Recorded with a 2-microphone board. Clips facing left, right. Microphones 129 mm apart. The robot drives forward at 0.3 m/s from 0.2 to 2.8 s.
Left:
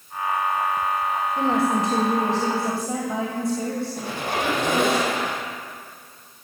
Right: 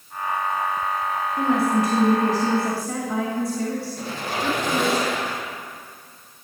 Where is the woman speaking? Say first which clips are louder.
Right 2 dB; 30° left (ahead or behind), 1.7 m; by 5.0 s 25° left (ahead or behind), 2 m.